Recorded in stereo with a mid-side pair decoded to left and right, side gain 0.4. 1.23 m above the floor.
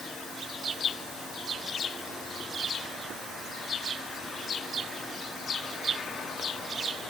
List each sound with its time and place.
Only background noise.